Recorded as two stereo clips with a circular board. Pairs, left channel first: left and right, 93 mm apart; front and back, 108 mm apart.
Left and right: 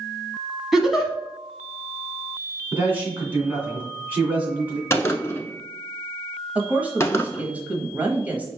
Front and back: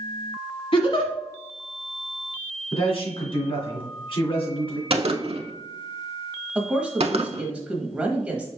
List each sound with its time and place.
0.7 s a giggle: 5° right, 1.1 m
2.7 s a man speaking: 20° right, 2 m
4.9 s a gunshot: 150° left, 0.6 m
6.5 s a woman speaking: 125° right, 0.9 m